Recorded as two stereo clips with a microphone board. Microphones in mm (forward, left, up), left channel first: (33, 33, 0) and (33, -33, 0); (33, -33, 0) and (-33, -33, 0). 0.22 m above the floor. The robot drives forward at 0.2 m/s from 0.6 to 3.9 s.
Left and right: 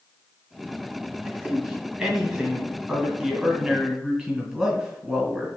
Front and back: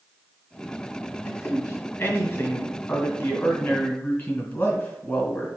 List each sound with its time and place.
1.2 s a man speaking: 25° right, 1.8 m; by 5.5 s 45° right, 1.6 m